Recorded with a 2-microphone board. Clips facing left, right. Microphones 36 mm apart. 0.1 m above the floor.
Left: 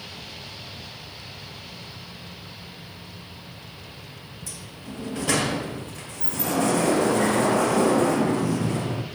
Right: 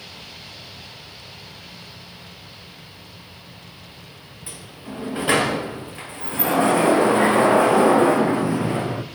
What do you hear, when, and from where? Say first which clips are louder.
4.5 s a sliding door: right 4 dB; 25° right (ahead or behind), 2.5 m